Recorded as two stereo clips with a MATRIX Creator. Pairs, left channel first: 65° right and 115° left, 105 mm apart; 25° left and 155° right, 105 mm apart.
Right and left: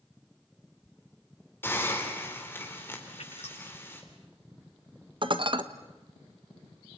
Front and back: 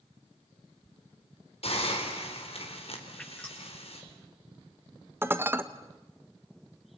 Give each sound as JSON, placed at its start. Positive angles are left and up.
{"t": 1.6, "sound": "a hiss", "azimuth_deg": 0, "distance_m": 4.0}
{"t": 3.2, "sound": "dripping", "azimuth_deg": -60, "distance_m": 8.0}
{"t": 5.2, "sound": "dishes clattering", "azimuth_deg": 135, "distance_m": 1.2}